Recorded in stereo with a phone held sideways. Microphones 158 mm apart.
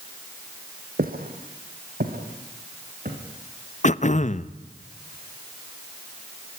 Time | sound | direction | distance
1.0 | footsteps | 65° right (ahead or behind) | 3 m
3.8 | throat clearing | 50° left (ahead or behind) | 0.7 m